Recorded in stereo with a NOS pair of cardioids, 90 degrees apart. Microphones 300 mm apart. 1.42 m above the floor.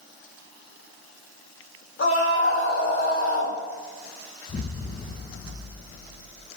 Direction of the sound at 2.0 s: 45° left.